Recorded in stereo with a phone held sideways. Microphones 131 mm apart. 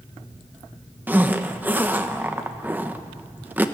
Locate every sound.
1.1 s a zipper: 15° right (ahead or behind), 1.0 m